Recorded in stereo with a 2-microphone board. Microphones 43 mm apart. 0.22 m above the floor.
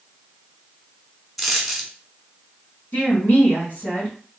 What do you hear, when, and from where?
1.4 s a dropped coin: 5° left (ahead or behind), 0.9 m
2.9 s a woman speaking: 35° left (ahead or behind), 2 m